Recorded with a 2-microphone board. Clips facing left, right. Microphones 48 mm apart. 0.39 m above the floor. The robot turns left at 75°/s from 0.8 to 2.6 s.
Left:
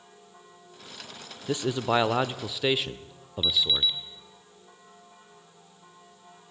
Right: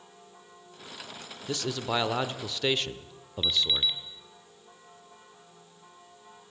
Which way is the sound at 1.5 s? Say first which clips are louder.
Left 5 dB; 20° left (ahead or behind).